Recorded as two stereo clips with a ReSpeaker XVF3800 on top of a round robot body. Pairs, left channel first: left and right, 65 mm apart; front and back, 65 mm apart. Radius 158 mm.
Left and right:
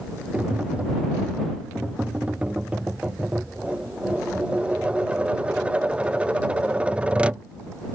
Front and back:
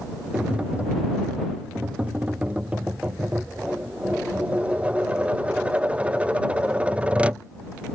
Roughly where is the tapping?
Behind right.